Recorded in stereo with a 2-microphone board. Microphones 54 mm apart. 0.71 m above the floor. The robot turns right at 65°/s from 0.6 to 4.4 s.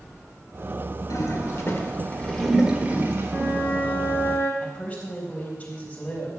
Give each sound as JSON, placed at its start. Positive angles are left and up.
{"t": 1.1, "sound": "a toilet flushing", "side_deg": 80, "distance_m": 1.5}
{"t": 3.3, "sound": "a flute", "azimuth_deg": -15, "distance_m": 3.5}
{"t": 4.6, "sound": "a woman speaking", "side_deg": 25, "distance_m": 3.5}